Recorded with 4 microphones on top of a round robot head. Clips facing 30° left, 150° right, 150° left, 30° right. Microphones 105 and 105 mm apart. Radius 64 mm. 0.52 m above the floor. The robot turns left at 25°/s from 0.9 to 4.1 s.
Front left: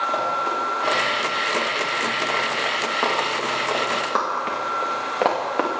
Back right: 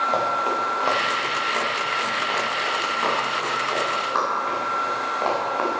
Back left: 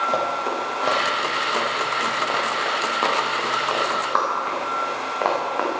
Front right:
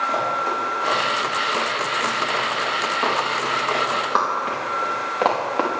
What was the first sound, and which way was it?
Running footsteps, 150° left.